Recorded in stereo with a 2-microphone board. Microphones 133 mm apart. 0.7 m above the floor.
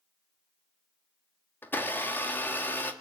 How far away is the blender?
About 1.5 m.